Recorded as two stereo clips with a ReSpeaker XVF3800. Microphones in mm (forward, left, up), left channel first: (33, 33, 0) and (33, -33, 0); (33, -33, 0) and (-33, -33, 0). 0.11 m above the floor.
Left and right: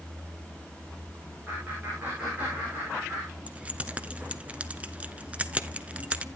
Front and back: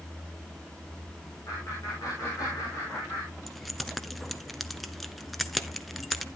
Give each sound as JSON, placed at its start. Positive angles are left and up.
{"t": 1.5, "sound": "laughter", "azimuth_deg": -30, "distance_m": 6.0}
{"t": 3.5, "sound": "keys jangling", "azimuth_deg": -90, "distance_m": 0.7}